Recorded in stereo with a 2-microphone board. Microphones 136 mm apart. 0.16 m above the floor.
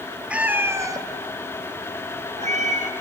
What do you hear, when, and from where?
0.3 s a cat meowing: 10° right (ahead or behind), 1.7 m; by 2.9 s 65° right (ahead or behind), 2 m